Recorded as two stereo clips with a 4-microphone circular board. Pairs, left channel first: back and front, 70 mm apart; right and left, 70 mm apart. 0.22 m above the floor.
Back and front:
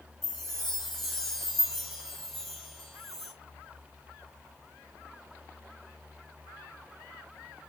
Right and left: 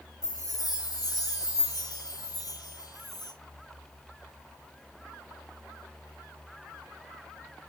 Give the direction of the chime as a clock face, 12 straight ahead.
3 o'clock.